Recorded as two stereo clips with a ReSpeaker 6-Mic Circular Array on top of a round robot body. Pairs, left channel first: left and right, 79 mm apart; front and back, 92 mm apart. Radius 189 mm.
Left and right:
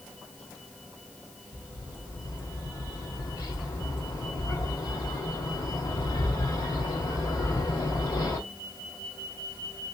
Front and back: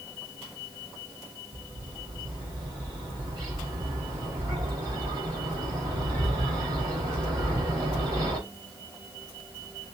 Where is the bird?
130° left, 3 m.